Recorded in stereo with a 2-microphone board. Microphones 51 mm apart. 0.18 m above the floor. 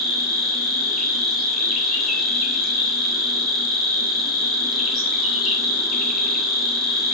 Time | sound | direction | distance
0.0 | an insect | 5° right (ahead or behind) | 0.8 m